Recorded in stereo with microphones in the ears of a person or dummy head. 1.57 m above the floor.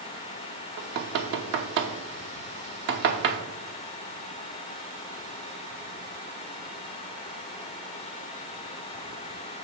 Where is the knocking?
55° right (ahead or behind), 0.9 m.